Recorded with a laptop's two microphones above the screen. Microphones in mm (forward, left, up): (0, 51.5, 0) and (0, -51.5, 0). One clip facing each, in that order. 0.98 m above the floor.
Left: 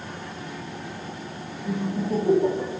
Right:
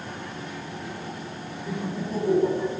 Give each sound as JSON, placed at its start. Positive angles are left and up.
{"t": 1.6, "sound": "laughter", "side_deg": 10, "distance_m": 0.9}